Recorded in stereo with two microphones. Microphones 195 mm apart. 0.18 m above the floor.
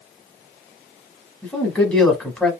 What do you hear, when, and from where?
1.4 s a man speaking: 5° left (ahead or behind), 1.0 m